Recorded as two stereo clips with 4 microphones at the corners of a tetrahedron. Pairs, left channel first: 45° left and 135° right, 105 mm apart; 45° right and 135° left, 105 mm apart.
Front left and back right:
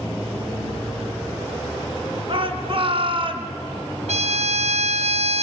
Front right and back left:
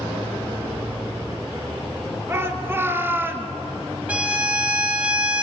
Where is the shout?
160° right, 3 m; by 3.5 s 155° right, 2.5 m.